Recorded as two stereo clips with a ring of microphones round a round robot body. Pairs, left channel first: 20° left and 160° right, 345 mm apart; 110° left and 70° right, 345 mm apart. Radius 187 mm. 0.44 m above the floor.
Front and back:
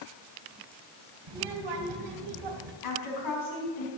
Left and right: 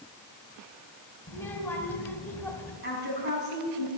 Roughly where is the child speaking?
Behind.